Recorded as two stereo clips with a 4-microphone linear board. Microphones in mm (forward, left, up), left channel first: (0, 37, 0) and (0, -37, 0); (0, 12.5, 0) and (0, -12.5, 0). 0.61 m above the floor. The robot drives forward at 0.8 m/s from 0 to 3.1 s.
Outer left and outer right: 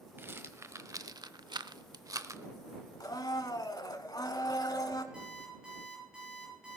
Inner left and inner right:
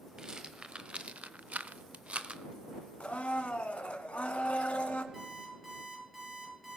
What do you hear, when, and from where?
0.2 s a rattle: 30° right (ahead or behind), 1.3 m; by 2.4 s 40° right (ahead or behind), 0.9 m
3.0 s a blender: 60° left (ahead or behind), 1.4 m
5.1 s an alarm clock: 10° right (ahead or behind), 7.5 m